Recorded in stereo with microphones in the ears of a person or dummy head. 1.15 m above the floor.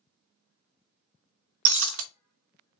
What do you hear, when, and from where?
1.6 s breaking glass: 60° right (ahead or behind), 0.6 m